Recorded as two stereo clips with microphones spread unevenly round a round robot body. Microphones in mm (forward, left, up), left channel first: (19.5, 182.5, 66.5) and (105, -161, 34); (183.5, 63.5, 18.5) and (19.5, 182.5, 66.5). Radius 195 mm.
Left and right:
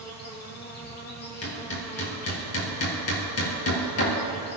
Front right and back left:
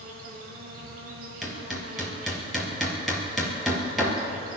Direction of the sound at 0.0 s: 170° left.